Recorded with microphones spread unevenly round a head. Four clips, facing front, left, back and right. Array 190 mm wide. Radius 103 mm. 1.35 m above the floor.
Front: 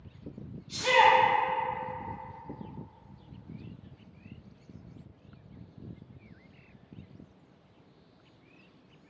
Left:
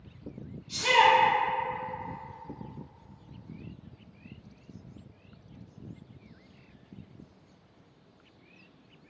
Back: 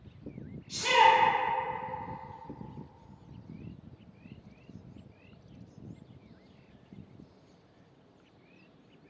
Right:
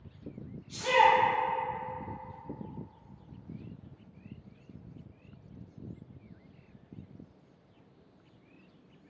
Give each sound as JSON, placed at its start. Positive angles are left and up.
{"t": 0.7, "sound": "a shout", "azimuth_deg": 70, "distance_m": 1.6}